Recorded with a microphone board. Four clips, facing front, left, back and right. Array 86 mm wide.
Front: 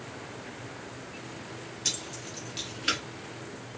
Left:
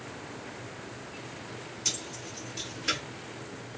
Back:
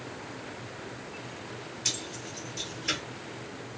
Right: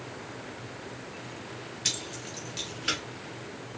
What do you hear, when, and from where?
1.9 s keys jangling: 90° right, 1.8 m; by 3.0 s 15° right, 1.7 m